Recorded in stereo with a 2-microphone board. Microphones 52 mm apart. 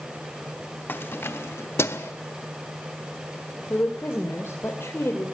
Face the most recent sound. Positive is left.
turn(degrees=60)  # may be behind; listen again after turning